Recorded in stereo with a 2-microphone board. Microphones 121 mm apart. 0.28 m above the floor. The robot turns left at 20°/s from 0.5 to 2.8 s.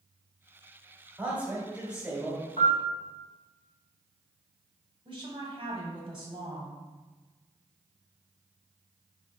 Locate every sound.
1.2 s a man speaking: 15° right (ahead or behind), 1.5 m; by 2.4 s 5° right (ahead or behind), 1.5 m
2.6 s a piano: 60° left (ahead or behind), 0.8 m
5.0 s a woman speaking: 45° right (ahead or behind), 1.3 m